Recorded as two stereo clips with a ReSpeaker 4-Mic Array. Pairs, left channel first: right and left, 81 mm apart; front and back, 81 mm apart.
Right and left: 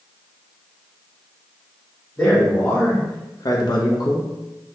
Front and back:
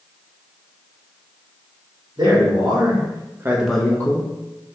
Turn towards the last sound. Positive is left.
turn(degrees=-45)